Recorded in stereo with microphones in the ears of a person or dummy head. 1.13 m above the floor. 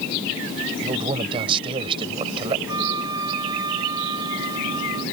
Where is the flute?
20° right (ahead or behind).